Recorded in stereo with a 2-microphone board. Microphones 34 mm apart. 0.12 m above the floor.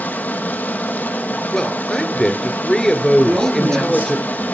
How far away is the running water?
About 2 m.